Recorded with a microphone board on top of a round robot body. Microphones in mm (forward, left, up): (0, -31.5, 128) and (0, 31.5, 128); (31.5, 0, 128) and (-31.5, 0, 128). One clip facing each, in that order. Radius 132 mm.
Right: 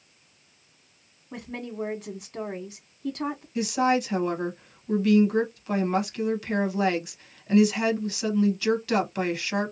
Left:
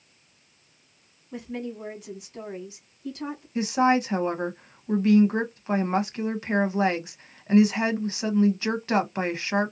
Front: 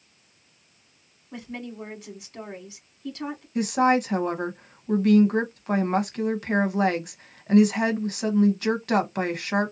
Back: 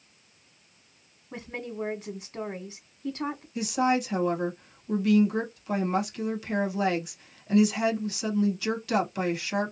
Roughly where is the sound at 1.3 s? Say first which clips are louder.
Left 1 dB, even; behind right.